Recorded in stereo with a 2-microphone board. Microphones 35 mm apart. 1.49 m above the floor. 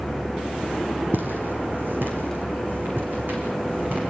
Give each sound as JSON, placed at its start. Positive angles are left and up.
{"t": 1.1, "sound": "footsteps", "side_deg": -70, "distance_m": 4.5}